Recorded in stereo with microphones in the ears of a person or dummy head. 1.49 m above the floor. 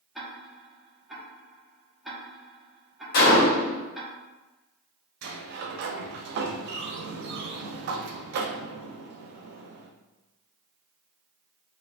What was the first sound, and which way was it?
Ticking, centre (ahead or behind).